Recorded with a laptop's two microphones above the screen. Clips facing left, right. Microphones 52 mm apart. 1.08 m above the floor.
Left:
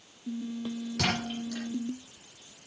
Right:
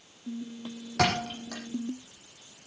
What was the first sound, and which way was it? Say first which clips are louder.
A thud: right 5 dB; 80° right.